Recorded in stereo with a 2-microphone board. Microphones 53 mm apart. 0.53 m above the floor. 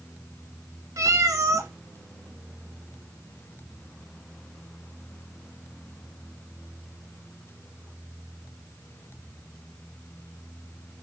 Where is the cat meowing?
80° right, 1.3 m.